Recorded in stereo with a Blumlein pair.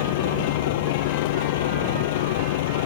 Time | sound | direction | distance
0.0 | a vehicle | 50° left | ?